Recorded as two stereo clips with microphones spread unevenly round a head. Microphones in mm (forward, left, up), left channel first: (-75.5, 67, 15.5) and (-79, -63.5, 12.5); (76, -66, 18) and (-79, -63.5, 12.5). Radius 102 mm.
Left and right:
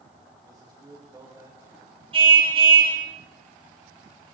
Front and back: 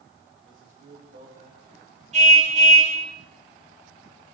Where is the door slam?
I don't hear a door slam.